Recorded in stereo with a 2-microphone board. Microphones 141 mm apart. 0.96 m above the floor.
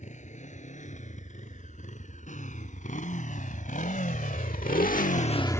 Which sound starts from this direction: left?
A motorcycle, at 0.0 s.